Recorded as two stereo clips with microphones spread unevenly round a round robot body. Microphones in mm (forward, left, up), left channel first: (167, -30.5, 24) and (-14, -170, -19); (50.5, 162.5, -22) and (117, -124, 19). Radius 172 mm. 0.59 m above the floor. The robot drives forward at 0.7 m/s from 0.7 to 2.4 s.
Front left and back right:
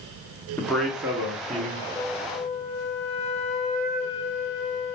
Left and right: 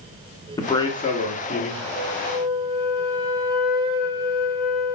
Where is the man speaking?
130° left, 0.6 m; by 1.9 s 170° left, 1.2 m.